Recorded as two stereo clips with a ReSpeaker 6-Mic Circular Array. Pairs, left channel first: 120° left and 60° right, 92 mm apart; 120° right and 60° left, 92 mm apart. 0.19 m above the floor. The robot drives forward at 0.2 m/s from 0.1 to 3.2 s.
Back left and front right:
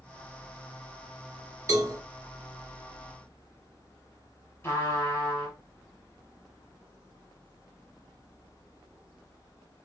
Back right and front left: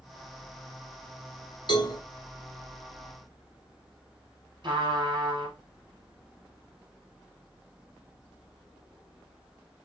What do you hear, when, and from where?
1.7 s a cowbell: 105° right, 0.8 m; by 2.0 s 110° right, 0.8 m
4.6 s a trumpet: 65° left, 1.0 m